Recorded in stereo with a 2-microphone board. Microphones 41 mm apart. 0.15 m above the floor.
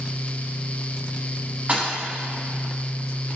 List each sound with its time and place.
1.7 s a thud: 35° right (ahead or behind), 3.5 m